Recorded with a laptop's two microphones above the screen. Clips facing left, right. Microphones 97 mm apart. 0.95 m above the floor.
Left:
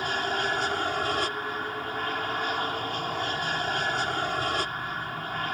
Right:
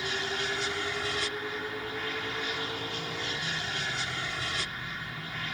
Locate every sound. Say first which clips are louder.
0.0 s an aircraft: left 5 dB; 45° left (ahead or behind)